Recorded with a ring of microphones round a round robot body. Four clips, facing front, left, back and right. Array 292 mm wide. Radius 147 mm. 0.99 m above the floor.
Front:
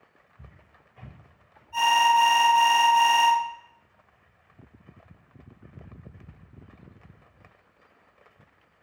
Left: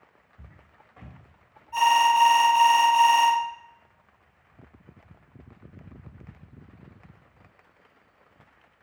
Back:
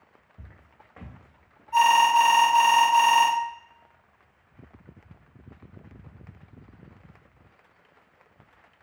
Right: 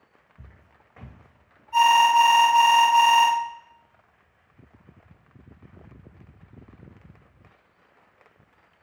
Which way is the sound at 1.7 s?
170° right.